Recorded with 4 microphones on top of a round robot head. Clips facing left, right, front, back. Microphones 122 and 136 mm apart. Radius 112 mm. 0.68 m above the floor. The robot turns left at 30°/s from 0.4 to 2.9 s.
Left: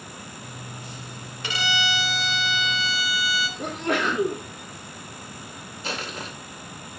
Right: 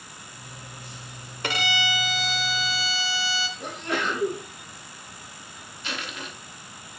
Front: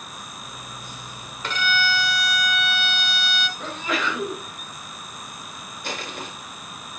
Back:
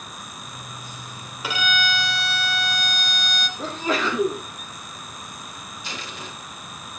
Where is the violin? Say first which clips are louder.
Even, even; 100° right, 1.3 m; by 3.5 s 140° right, 1.3 m.